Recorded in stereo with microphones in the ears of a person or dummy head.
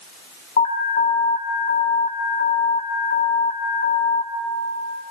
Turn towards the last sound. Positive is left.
turn(degrees=45)  # may be behind; listen again after turning